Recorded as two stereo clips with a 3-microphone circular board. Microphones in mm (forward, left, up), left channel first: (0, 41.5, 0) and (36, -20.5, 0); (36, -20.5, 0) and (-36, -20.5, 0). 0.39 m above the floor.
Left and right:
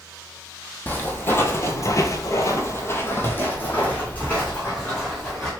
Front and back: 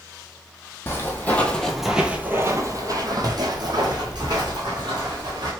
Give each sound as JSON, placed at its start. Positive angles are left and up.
{"t": 0.9, "sound": "footsteps", "azimuth_deg": 55, "distance_m": 0.8}